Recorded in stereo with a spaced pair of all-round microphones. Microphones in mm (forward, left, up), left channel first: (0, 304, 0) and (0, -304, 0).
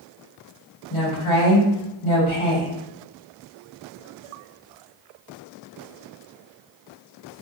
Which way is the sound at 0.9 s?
55° left (ahead or behind).